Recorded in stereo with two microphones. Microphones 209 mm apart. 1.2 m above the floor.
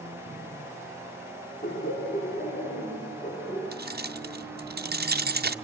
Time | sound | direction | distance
1.6 | laughter | 55° left (ahead or behind) | 3 m
3.7 | keys jangling | 50° right (ahead or behind) | 0.5 m